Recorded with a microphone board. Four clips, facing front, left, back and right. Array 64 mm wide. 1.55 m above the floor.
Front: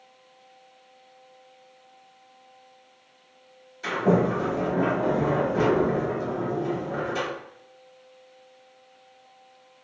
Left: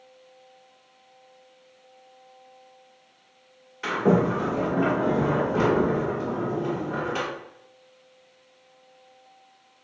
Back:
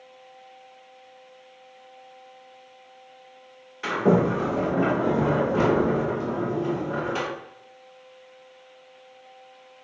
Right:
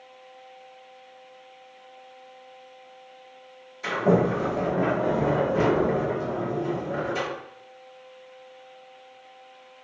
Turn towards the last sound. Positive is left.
turn(degrees=135)